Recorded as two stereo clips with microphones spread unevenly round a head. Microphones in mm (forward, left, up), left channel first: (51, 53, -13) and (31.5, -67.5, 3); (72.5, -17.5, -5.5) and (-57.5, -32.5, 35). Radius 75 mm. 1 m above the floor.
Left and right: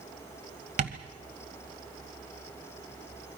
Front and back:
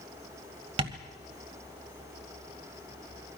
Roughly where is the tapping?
Behind right.